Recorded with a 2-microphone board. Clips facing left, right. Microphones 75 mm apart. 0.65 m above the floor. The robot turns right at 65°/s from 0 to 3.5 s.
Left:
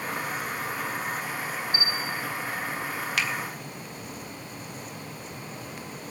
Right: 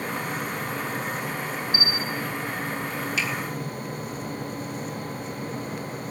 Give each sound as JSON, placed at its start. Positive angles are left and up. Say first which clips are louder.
{"t": 1.7, "sound": "a bell", "louder": "right 2 dB", "azimuth_deg": -25, "distance_m": 0.7}
{"t": 3.2, "sound": "a finger snap", "louder": "left 1 dB", "side_deg": 65, "distance_m": 1.0}